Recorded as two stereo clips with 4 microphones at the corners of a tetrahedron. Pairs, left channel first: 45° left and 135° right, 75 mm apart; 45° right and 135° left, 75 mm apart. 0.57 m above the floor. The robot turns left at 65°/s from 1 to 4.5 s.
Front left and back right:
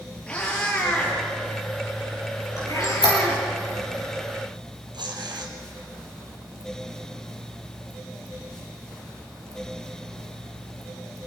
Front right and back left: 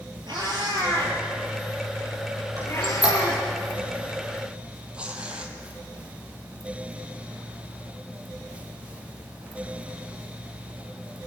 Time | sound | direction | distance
0.3 | a cat meowing | 120° left | 6.5 m
2.6 | a squeak | 95° left | 7 m
4.9 | tearing paper | 150° right | 2.5 m